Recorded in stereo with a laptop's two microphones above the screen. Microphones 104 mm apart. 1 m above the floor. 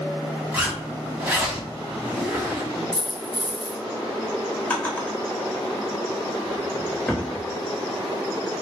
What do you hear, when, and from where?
0.5 s a zipper: 15° right (ahead or behind), 1.5 m
2.9 s a dropped coin: 40° right (ahead or behind), 1.4 m
4.7 s a drawer: 15° left (ahead or behind), 0.8 m